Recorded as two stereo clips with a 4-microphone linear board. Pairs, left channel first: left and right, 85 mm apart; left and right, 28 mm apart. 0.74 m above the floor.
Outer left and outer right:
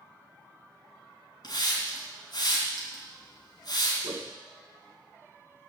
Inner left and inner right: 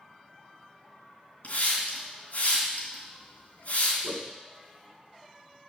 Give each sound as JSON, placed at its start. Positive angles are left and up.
{"t": 1.4, "sound": "a hiss", "side_deg": 55, "distance_m": 3.0}
{"t": 4.0, "sound": "a whoosh", "side_deg": -50, "distance_m": 0.9}